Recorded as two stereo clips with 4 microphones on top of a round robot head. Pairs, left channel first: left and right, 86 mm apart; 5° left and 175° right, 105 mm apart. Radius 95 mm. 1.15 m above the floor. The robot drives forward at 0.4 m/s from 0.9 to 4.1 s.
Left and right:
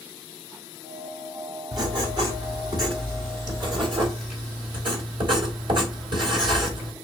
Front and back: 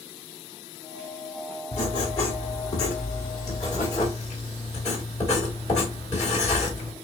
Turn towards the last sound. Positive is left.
turn(degrees=-60)